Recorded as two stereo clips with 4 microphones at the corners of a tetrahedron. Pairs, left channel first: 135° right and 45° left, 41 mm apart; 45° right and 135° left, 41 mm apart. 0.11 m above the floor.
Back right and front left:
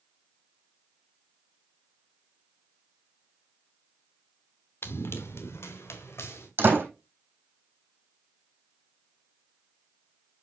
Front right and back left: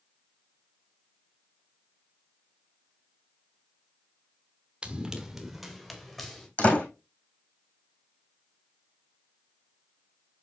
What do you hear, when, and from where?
4.8 s running footsteps: 155° right, 1.7 m; by 6.5 s 125° right, 3.5 m
6.6 s a door slam: 15° left, 3.5 m